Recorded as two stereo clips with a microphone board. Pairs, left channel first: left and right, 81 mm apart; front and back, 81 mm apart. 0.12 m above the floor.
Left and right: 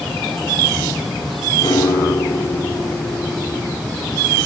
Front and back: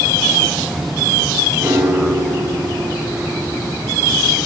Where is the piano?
120° left, 3 m.